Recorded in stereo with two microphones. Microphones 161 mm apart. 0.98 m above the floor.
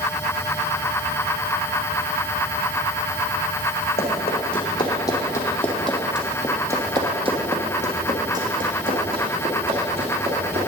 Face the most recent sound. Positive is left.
turn(degrees=-75)  # may be behind; listen again after turning